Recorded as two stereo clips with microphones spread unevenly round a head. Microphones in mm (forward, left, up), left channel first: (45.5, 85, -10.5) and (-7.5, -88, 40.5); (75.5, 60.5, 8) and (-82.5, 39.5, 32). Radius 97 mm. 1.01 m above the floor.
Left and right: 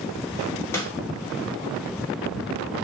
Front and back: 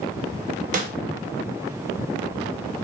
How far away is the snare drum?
About 0.8 m.